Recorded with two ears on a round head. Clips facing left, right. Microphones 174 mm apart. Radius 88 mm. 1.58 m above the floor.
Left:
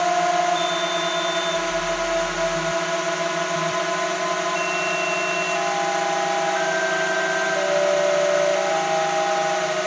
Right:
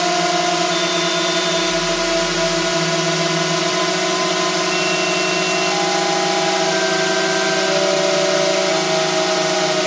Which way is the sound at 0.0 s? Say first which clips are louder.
Right 2 dB; 55° right (ahead or behind).